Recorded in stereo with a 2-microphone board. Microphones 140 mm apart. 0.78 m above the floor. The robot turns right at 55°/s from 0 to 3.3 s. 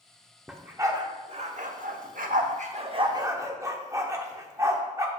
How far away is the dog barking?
About 0.7 m.